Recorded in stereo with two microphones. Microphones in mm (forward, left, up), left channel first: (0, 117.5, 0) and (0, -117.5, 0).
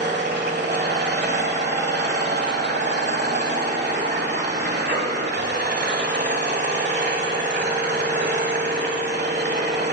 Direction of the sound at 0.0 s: 45° right (ahead or behind).